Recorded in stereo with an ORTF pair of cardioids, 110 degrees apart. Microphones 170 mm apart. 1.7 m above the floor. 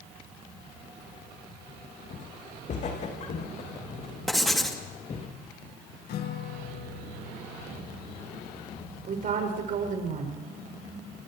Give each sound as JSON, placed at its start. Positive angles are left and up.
{"t": 2.1, "sound": "footsteps", "azimuth_deg": 50, "distance_m": 5.5}
{"t": 4.3, "sound": "writing", "azimuth_deg": 0, "distance_m": 3.0}
{"t": 6.1, "sound": "a guitar", "azimuth_deg": 65, "distance_m": 2.0}
{"t": 9.1, "sound": "a woman speaking", "azimuth_deg": -55, "distance_m": 7.0}